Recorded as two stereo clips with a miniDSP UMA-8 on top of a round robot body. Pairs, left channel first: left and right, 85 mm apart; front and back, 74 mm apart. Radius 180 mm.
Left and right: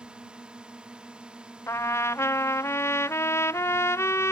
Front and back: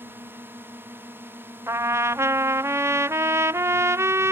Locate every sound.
0.0 s a drone: 155° right
1.7 s a trumpet: 140° left